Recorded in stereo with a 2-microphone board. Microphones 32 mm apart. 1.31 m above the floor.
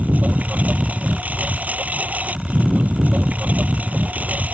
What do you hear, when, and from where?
0.0 s a lawn mower: 50° right (ahead or behind)